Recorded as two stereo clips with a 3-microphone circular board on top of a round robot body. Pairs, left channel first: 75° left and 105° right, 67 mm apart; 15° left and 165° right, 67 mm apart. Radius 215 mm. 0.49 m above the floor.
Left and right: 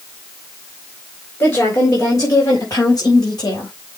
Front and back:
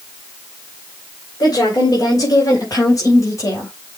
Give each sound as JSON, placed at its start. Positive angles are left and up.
{"t": 1.4, "sound": "a woman speaking", "azimuth_deg": 30, "distance_m": 3.5}